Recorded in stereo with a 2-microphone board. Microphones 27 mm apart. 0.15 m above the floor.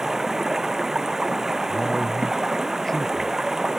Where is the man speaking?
15° left (ahead or behind).